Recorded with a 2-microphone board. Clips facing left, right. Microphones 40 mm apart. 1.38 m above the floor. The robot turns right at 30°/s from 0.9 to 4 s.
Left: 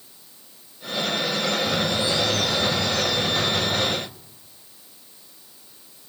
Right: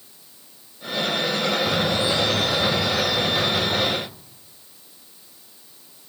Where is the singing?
I don't hear singing.